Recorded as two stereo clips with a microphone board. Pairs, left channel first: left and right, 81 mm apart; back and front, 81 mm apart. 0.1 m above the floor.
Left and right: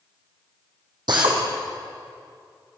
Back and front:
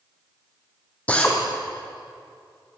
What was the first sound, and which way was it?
A drill, 110° right.